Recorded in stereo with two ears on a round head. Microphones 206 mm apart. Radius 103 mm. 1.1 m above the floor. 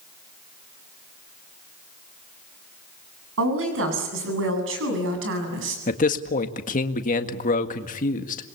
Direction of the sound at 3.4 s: 65° right (ahead or behind).